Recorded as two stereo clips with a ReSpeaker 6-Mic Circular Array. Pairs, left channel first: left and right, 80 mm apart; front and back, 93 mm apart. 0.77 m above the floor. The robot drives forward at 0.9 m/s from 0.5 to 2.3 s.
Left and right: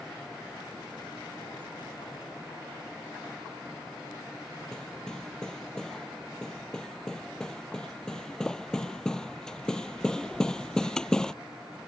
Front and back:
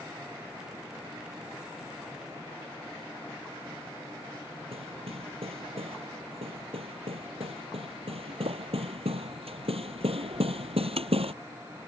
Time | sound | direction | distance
4.7 | hammering | 170° left | ?